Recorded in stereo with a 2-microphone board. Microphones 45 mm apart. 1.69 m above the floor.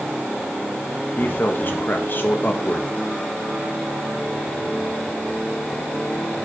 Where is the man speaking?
45° left (ahead or behind), 1.7 m.